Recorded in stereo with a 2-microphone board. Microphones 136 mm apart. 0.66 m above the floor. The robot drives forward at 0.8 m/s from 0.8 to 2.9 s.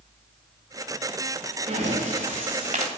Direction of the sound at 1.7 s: 60° right (ahead or behind).